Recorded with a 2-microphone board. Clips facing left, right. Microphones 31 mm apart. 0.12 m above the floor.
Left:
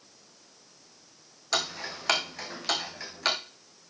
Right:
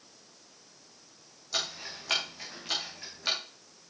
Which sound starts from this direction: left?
Ticking, at 1.5 s.